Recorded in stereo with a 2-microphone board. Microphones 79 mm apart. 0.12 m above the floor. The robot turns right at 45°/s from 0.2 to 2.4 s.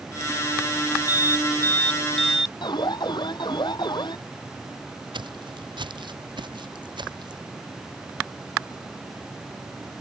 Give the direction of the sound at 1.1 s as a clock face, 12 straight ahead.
8 o'clock.